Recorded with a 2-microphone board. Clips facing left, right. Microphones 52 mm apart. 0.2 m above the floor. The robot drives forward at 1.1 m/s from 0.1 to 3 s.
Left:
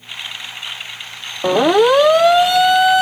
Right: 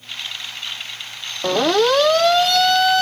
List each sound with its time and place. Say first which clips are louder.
1.4 s a siren: left 4 dB; 15° left (ahead or behind)